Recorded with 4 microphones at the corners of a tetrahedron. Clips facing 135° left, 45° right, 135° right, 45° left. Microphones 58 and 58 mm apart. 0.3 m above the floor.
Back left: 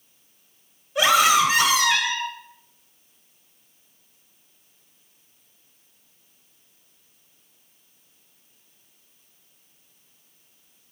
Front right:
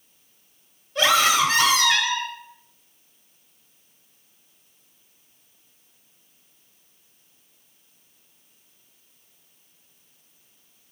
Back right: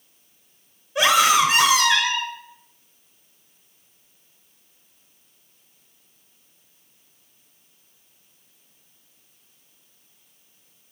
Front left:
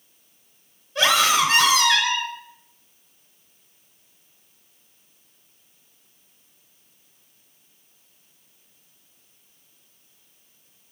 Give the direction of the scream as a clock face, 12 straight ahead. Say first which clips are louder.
Back left 2 dB, back right 2 dB; 6 o'clock.